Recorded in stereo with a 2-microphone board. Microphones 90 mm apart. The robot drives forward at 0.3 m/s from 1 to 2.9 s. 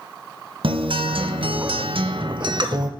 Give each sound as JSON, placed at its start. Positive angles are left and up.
{"t": 0.6, "sound": "a guitar", "side_deg": -70, "distance_m": 0.6}